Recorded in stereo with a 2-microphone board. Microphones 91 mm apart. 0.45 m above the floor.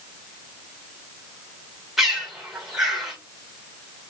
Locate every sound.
2.0 s a bird: 5° right (ahead or behind), 1.6 m